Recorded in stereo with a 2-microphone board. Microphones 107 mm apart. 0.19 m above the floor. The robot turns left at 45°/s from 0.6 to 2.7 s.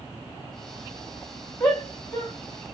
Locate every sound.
1.6 s a shout: 15° left (ahead or behind), 1.3 m; by 2.3 s 25° left (ahead or behind), 1.3 m